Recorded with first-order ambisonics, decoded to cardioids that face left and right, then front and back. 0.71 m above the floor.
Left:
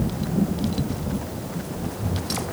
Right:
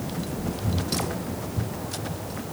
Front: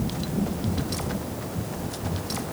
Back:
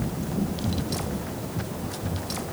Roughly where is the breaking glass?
No breaking glass in this recording.